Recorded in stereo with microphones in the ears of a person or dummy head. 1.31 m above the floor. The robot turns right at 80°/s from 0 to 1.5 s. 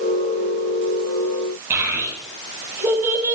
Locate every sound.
1.7 s a child speaking: 15° right (ahead or behind), 6 m